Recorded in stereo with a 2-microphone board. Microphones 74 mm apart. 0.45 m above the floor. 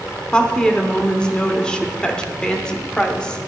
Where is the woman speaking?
15° left (ahead or behind), 0.9 m.